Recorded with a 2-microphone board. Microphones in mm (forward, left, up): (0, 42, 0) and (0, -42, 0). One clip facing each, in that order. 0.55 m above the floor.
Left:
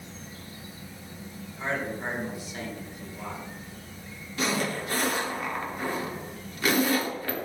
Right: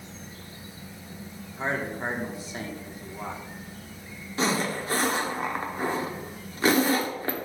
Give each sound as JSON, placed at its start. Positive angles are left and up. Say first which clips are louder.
{"t": 1.6, "sound": "a man speaking", "louder": "right 2 dB", "side_deg": -30, "distance_m": 1.4}
{"t": 4.4, "sound": "a zipper", "louder": "right 2 dB", "side_deg": -30, "distance_m": 1.1}